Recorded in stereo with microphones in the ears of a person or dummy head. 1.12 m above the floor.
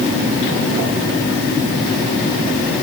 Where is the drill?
No drill in this recording.